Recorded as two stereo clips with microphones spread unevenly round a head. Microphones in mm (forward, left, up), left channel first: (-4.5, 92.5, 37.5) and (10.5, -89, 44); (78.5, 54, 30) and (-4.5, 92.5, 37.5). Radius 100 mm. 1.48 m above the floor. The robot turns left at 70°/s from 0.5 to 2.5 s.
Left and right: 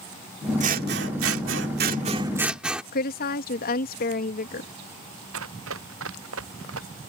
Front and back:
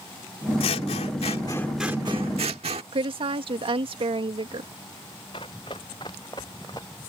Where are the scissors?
35° right; by 2.8 s 170° right.